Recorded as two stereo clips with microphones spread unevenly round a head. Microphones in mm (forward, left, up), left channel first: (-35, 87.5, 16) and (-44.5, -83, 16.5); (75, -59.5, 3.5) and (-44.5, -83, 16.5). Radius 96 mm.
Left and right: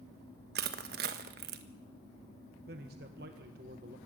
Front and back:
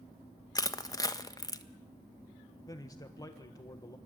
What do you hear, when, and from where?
0.6 s crushing: 50° right, 1.4 m
2.7 s a man speaking: 50° right, 1.4 m